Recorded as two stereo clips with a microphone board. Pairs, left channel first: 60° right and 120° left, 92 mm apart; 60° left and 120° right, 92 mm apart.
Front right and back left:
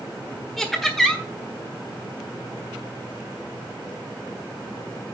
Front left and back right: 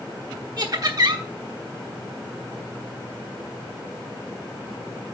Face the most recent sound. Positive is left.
turn(degrees=-150)